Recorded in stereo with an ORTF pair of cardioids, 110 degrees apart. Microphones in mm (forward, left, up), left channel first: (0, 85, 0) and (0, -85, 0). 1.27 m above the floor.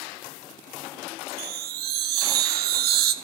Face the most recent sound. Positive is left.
turn(degrees=-70)